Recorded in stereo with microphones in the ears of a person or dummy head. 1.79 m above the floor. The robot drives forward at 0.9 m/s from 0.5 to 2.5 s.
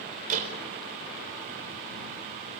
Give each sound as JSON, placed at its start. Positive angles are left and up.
{"t": 0.3, "sound": "a door slam", "side_deg": -45, "distance_m": 4.5}